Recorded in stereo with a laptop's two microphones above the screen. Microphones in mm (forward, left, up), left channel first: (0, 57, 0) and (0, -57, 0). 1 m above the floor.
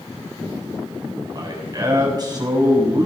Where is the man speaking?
35° right (ahead or behind), 8 m.